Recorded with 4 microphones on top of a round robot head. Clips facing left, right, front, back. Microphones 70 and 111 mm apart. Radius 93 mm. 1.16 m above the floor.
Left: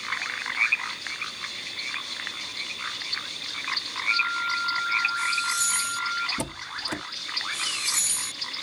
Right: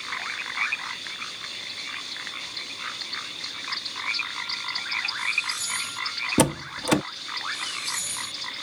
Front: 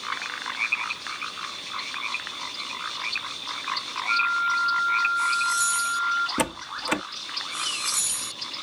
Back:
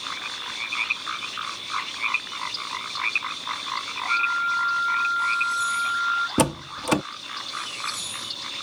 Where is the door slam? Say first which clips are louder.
Right 10 dB, back 5 dB; 115° right.